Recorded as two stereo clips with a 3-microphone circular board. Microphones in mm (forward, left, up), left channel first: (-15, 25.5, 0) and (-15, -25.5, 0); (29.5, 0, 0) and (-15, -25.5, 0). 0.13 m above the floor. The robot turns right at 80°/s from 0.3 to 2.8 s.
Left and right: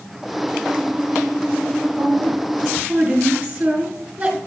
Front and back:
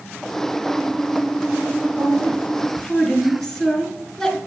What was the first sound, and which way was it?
A woman speaking, 100° right.